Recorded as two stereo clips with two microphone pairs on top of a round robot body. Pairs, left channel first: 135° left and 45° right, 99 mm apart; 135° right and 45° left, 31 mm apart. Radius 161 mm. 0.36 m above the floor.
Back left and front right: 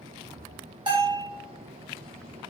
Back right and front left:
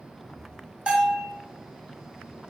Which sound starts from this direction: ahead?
A bell, at 0.9 s.